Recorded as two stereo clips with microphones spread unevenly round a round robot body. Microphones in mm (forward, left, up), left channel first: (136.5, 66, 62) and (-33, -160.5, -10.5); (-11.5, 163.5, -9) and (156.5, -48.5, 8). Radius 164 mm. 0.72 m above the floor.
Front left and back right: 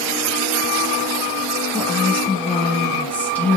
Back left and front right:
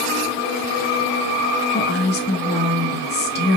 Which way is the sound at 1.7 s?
150° left.